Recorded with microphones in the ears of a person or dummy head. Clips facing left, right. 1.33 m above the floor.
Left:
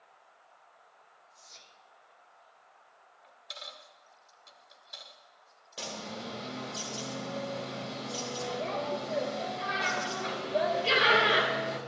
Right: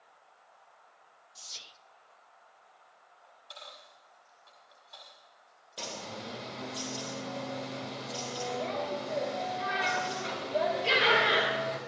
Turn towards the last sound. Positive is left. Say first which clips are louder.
# left 1 dB
turn(degrees=5)  # may be behind; listen again after turning